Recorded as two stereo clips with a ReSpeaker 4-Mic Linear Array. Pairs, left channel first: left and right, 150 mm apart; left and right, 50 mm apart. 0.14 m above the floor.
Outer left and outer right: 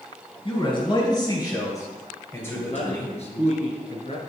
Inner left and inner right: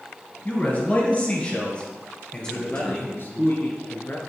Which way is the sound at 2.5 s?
45° left (ahead or behind).